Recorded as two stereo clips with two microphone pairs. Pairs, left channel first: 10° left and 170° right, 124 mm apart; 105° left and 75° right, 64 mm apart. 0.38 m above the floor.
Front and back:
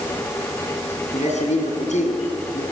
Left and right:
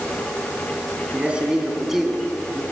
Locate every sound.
1.1 s a man speaking: 5° right, 3.5 m; by 2.6 s 20° left, 3.5 m